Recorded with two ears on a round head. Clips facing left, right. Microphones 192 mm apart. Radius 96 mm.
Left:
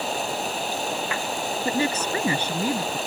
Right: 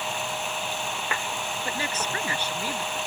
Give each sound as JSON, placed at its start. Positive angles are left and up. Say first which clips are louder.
{"t": 0.0, "sound": "running water", "louder": "left 5 dB", "side_deg": 35}
{"t": 1.6, "sound": "a woman speaking", "louder": "left 9 dB", "side_deg": 75}